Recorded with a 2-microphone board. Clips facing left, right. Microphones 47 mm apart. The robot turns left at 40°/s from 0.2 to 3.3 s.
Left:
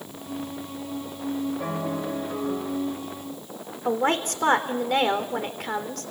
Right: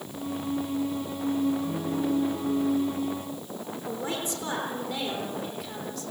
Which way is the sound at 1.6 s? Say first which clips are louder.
Even; 100° left.